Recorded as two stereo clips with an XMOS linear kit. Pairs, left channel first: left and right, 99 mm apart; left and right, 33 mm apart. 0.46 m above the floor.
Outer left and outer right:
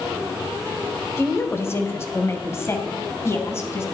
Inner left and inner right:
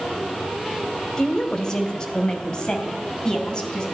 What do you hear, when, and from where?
1.2 s a woman speaking: 25° left (ahead or behind), 2.0 m; by 3.8 s 30° left (ahead or behind), 4 m